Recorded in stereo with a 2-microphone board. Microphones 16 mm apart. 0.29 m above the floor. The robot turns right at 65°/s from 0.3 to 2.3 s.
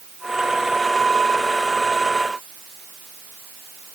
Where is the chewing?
I don't hear chewing.